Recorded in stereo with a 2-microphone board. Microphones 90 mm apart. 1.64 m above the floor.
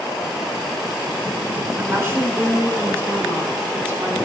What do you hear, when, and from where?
1.8 s a woman speaking: 30° right (ahead or behind), 6.5 m